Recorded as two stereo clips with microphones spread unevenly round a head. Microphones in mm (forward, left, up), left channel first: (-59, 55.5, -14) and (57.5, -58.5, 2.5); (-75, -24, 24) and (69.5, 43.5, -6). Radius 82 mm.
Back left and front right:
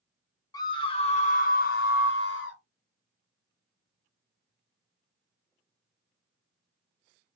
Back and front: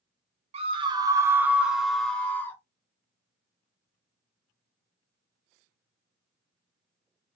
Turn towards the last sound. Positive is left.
turn(degrees=125)